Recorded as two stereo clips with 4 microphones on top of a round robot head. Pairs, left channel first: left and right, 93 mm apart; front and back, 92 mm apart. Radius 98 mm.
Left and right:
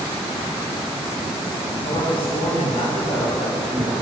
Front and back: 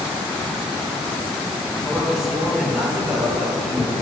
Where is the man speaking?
90° left, 3 m.